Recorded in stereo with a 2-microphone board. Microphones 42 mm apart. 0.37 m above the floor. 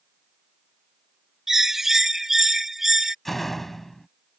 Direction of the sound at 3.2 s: 5° left (ahead or behind).